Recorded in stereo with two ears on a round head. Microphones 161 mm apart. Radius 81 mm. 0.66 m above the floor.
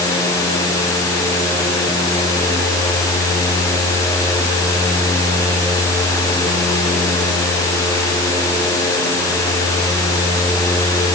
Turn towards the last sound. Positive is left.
No sound to turn to.